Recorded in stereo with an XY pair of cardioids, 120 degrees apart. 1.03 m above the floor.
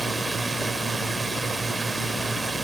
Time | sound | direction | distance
0.0 | a drone | 20° right | ?